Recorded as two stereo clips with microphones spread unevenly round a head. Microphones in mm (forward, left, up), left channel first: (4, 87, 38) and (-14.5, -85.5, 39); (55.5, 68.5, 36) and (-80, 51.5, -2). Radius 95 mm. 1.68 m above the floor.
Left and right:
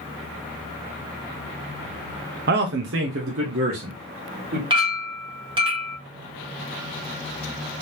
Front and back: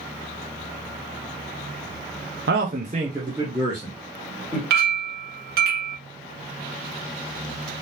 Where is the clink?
155° right, 1.5 m.